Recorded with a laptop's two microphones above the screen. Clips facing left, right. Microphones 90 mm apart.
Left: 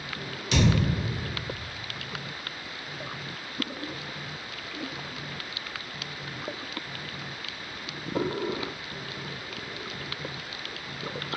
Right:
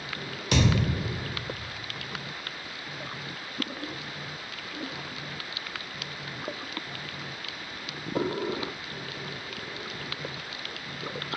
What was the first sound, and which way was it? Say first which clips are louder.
A thud: left 1 dB; 55° right (ahead or behind).